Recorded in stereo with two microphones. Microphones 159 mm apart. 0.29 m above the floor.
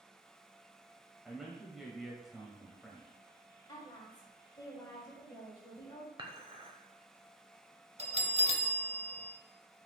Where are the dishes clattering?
30° right (ahead or behind), 0.8 m.